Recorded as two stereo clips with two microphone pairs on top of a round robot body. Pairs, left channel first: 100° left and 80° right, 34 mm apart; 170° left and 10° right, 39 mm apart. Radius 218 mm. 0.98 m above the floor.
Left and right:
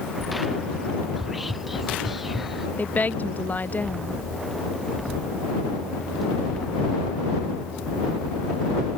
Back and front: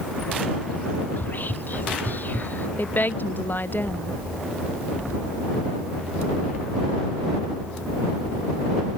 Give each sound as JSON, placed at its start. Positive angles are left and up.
{"t": 1.2, "sound": "whispering", "azimuth_deg": -165}
{"t": 2.8, "sound": "a woman speaking", "azimuth_deg": 135}